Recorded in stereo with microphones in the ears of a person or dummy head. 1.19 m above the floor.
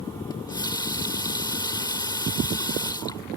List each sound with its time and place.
0.3 s a running tap: 20° left (ahead or behind)